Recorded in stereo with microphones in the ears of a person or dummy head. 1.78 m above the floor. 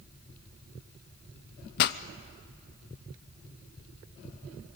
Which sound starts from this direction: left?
A pop, at 1.8 s.